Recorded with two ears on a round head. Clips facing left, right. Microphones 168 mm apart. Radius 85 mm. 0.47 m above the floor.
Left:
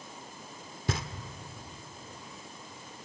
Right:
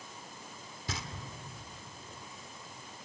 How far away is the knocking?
About 1.2 m.